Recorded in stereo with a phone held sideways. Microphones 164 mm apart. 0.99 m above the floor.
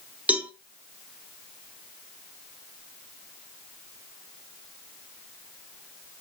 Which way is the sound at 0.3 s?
10° right (ahead or behind).